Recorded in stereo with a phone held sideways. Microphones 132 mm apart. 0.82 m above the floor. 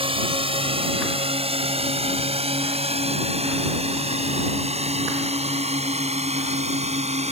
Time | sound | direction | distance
0.0 | a drone | 45° right (ahead or behind) | ?